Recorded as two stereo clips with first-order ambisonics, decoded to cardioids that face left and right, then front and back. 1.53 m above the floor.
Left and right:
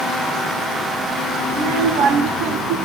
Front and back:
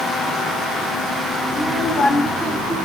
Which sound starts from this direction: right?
A child speaking, at 1.5 s.